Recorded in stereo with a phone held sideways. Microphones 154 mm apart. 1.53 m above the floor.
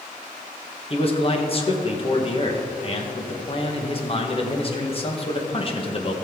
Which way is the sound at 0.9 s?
40° left (ahead or behind).